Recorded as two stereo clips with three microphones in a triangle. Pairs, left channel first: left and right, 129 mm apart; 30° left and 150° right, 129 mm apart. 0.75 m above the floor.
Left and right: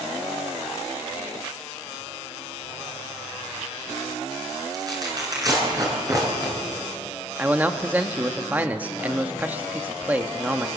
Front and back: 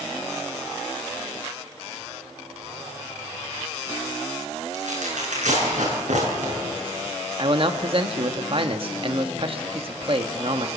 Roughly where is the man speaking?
Behind.